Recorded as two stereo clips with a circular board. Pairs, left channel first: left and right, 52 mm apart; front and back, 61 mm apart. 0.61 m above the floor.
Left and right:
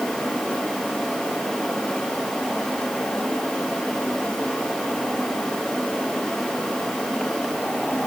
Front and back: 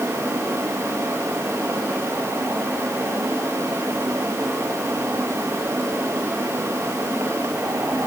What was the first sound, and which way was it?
Only background noise.